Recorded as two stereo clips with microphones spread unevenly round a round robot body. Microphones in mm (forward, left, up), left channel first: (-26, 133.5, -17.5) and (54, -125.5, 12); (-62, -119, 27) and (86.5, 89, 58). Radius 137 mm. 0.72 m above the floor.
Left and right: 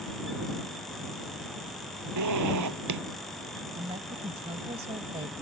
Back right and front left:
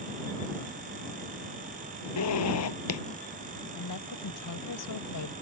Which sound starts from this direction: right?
A zipper, at 2.2 s.